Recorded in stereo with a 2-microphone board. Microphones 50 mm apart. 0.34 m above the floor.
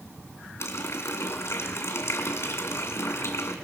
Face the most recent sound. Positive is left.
turn(degrees=60)  # may be behind; listen again after turning